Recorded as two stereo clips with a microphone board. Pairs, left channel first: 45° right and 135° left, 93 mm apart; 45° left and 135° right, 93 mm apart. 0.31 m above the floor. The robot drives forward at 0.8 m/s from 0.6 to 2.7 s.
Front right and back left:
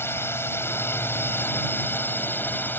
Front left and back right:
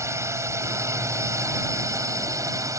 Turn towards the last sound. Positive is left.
turn(degrees=-100)